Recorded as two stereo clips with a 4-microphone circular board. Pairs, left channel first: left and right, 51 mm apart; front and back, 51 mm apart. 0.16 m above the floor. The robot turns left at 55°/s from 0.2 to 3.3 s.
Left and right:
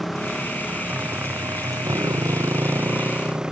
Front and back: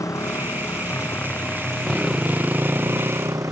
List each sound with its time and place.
0.0 s a motorcycle: 5° left; by 3.5 s 165° right